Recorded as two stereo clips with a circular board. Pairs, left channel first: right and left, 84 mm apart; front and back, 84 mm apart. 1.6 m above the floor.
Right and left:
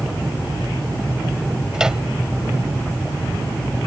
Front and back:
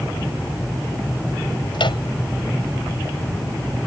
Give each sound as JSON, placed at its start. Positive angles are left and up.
{"t": 1.7, "sound": "a microwave", "azimuth_deg": 10}